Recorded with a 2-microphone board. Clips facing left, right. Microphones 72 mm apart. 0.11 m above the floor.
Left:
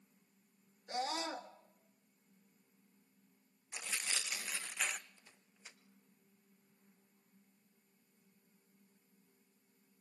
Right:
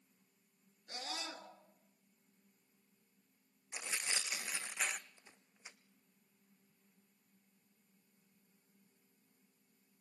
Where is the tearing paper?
20° right (ahead or behind), 1.2 m.